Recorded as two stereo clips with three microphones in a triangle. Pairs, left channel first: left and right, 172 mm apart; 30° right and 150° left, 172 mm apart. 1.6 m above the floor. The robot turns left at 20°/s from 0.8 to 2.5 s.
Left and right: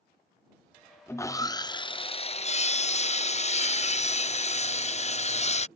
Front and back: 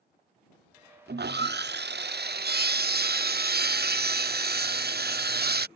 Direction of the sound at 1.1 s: 165° left.